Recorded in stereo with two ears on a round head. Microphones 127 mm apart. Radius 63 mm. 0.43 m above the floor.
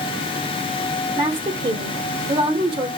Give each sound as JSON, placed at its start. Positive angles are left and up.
{"t": 1.2, "sound": "a woman speaking", "side_deg": -35, "distance_m": 1.2}